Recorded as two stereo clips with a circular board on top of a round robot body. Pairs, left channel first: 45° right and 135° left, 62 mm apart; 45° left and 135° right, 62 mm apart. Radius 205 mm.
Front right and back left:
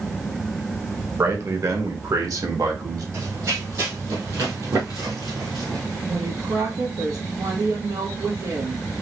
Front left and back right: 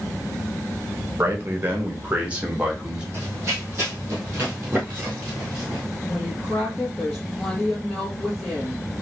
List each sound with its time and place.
1.2 s a man speaking: 170° left, 1.9 m; by 3.0 s 145° left, 2.5 m
3.1 s running footsteps: 165° left, 2.5 m; by 5.8 s 145° left, 1.1 m
6.1 s a woman speaking: 135° left, 2.5 m